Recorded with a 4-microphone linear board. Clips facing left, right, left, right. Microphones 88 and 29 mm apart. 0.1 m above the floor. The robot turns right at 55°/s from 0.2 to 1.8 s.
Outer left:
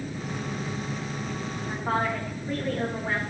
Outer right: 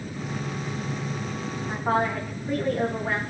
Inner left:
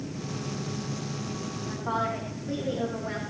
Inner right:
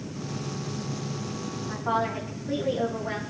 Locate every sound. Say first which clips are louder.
1.7 s a woman speaking: outer right 3 dB, inner right 2 dB; 5° right (ahead or behind), 7 m; by 3.2 s 15° right (ahead or behind), 7 m